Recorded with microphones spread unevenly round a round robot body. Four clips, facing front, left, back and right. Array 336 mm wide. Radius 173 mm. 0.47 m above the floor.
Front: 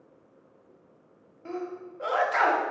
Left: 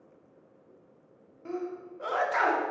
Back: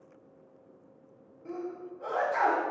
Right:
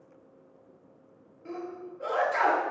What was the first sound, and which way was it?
A sneeze, 15° left.